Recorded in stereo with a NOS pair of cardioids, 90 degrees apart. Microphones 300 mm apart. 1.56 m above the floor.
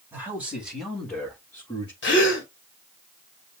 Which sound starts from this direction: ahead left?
A gasp, at 2.0 s.